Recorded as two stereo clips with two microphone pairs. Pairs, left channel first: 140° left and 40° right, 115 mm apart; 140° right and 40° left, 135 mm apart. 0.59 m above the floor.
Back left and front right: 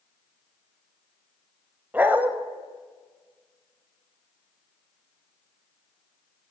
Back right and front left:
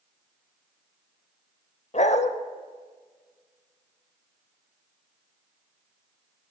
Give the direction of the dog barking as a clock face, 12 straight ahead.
4 o'clock.